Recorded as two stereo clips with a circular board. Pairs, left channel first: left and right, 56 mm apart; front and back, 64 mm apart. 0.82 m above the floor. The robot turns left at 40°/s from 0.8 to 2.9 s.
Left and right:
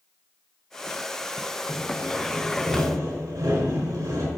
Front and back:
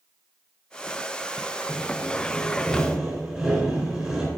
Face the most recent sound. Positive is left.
turn(degrees=-105)